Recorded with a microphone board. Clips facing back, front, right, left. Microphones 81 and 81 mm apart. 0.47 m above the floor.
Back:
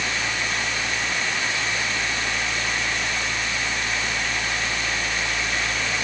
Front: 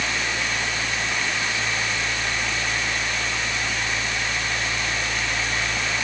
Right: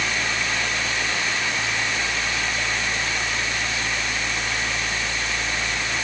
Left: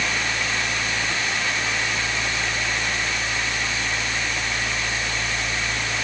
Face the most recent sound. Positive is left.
No sound to turn to.